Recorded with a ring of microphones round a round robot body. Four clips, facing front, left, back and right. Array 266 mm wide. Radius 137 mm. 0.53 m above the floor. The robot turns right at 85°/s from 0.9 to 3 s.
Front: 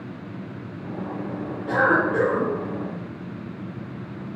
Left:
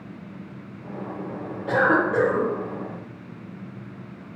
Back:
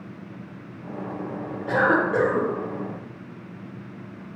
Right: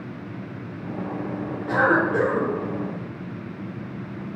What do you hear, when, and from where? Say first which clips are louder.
1.7 s a cough: even, even; 110° left, 1.7 m; by 2.5 s straight behind, 1.7 m